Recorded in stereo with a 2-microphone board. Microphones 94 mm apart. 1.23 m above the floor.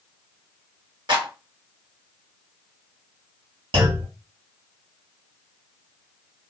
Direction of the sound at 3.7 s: 65° right (ahead or behind).